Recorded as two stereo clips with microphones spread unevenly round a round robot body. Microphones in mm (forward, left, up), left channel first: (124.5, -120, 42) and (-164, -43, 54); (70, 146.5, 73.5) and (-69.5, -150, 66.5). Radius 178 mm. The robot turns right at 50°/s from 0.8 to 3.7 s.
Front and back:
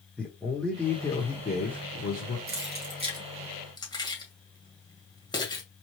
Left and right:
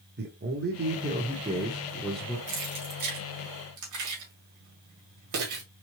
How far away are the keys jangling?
About 1.8 m.